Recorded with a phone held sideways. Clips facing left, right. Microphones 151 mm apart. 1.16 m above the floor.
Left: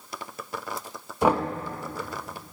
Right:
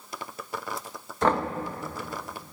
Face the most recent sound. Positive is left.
turn(degrees=10)  # may be behind; listen again after turning